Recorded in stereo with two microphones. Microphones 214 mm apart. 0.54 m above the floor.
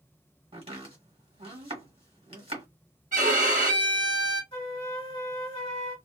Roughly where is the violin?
Right.